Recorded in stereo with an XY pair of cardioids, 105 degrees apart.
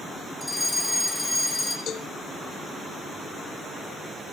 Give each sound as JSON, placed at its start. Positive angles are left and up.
{"t": 0.4, "sound": "a fire alarm", "azimuth_deg": 10, "distance_m": 7.5}
{"t": 1.9, "sound": "a cowbell", "azimuth_deg": 65, "distance_m": 1.3}